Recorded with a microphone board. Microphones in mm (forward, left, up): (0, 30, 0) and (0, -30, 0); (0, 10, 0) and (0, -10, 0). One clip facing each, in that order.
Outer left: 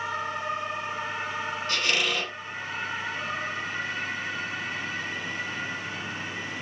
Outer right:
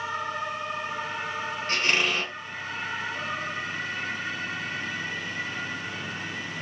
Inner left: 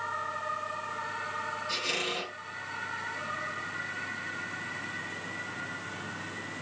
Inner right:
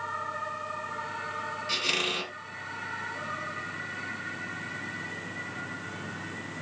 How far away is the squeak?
About 1.5 m.